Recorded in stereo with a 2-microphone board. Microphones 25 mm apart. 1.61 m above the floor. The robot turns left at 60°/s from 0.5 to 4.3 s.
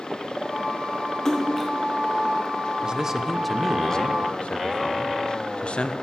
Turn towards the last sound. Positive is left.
turn(degrees=125)